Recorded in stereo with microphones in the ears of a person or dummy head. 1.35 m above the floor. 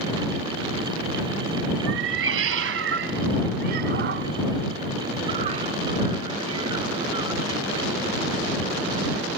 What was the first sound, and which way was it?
A cat meowing, 70° right (ahead or behind).